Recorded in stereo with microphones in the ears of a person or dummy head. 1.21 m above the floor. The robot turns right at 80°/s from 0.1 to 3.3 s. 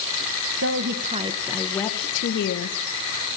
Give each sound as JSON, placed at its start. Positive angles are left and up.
{"t": 0.6, "sound": "a woman speaking", "azimuth_deg": -75, "distance_m": 0.8}